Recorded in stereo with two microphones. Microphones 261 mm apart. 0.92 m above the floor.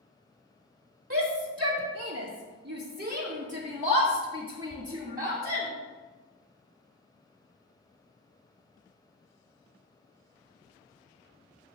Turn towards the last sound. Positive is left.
turn(degrees=-15)  # may be behind; listen again after turning